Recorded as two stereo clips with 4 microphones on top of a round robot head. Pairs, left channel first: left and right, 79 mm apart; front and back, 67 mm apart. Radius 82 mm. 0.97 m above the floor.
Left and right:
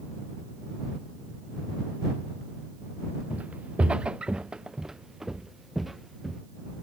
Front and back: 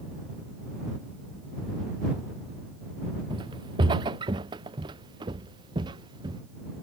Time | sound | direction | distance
3.3 | footsteps | 165° right | ?